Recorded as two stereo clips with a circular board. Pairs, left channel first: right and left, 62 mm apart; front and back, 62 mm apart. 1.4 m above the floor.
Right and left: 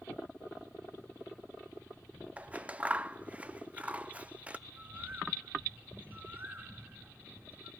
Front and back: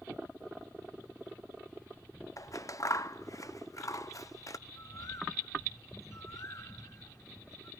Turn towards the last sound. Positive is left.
turn(degrees=35)